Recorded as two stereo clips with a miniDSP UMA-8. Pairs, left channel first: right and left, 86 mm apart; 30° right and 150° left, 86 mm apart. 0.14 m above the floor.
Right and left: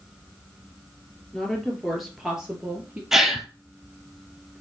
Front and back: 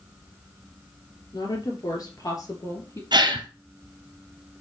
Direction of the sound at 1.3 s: 10° right.